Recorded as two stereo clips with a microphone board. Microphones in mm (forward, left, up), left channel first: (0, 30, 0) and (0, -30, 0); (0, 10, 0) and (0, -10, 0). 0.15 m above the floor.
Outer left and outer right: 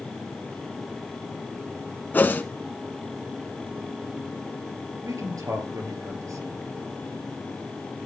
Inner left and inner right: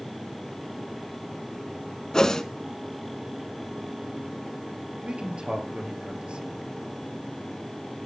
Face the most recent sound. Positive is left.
turn(degrees=-65)  # may be behind; listen again after turning